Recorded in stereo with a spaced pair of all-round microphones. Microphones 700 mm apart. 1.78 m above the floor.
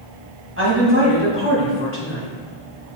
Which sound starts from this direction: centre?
A woman speaking, at 0.6 s.